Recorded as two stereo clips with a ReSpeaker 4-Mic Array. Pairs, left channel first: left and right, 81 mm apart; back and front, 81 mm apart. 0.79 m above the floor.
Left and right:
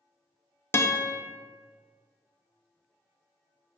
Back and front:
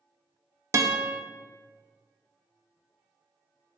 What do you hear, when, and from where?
0.7 s a guitar: 40° left, 0.6 m